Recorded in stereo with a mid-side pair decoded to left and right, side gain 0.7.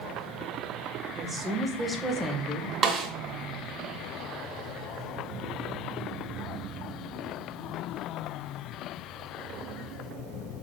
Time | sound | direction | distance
1.1 | a woman speaking | 20° right | 2.5 m
2.8 | a snare drum | 30° right | 1.7 m